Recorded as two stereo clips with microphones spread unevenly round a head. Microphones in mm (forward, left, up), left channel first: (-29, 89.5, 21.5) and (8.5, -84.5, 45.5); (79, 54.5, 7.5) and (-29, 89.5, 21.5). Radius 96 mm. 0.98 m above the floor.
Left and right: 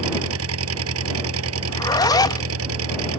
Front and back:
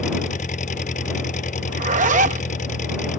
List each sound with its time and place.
0.0 s an engine running: 70° right
1.7 s a zipper: 170° left